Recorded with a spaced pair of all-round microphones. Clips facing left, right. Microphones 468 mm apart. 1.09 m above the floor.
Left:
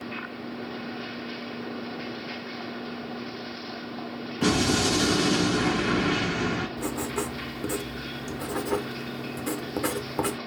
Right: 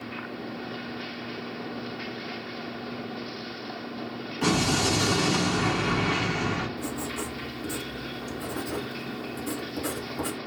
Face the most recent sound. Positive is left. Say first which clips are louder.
# left 3 dB
turn(degrees=80)